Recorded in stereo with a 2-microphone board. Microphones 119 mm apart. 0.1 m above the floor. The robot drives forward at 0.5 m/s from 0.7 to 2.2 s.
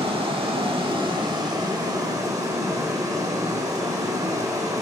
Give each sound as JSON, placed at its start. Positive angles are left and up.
{"t": 0.0, "sound": "running water", "side_deg": -45, "distance_m": 1.2}